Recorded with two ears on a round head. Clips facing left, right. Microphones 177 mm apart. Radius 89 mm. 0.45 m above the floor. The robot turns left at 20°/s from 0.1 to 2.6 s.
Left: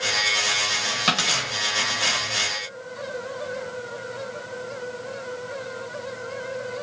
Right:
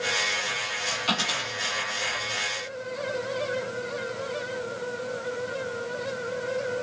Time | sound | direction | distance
1.1 | a dropped coin | 75° left (ahead or behind) | 4 m